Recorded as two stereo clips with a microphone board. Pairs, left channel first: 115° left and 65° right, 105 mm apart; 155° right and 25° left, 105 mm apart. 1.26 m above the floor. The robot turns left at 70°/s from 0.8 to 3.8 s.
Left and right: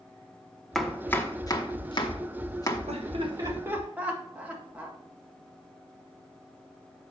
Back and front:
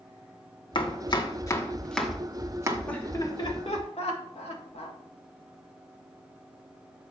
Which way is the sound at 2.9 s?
80° right.